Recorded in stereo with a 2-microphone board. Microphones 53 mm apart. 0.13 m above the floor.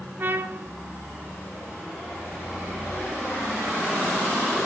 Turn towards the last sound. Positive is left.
turn(degrees=-45)  # may be behind; listen again after turning